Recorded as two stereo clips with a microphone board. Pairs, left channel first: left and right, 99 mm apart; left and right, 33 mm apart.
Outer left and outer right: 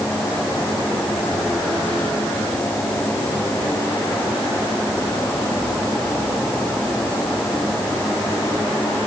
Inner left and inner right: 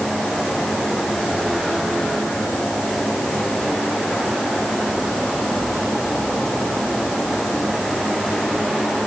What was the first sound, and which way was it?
Only background noise.